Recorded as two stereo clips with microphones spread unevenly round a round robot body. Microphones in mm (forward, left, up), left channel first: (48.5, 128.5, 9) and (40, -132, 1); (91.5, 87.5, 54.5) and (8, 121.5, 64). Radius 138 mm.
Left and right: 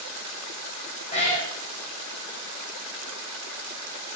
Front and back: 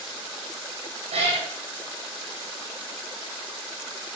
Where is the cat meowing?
160° left, 4.5 m.